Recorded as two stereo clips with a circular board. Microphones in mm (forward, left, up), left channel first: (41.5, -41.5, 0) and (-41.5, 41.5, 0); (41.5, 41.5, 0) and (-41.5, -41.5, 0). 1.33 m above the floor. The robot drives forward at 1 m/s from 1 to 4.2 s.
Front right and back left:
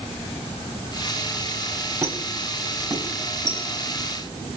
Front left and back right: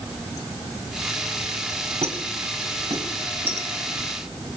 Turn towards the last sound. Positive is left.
turn(degrees=-170)